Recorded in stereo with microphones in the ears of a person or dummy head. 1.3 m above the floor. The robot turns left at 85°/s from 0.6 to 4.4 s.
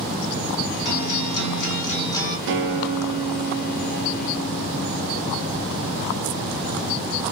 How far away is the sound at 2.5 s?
About 0.8 m.